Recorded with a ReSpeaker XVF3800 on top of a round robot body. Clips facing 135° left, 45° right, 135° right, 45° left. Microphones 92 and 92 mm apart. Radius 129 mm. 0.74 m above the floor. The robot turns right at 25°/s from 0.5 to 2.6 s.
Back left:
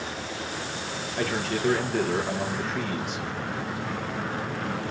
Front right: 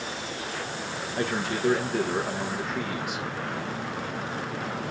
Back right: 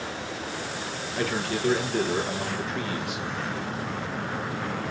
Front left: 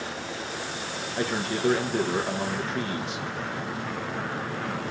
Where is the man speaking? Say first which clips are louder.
Even, even; straight ahead, 1.0 m; by 3.3 s 35° left, 1.0 m.